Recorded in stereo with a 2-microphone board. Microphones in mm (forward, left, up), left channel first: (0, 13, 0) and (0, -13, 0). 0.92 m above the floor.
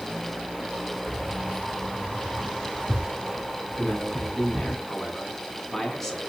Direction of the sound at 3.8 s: 5° left (ahead or behind).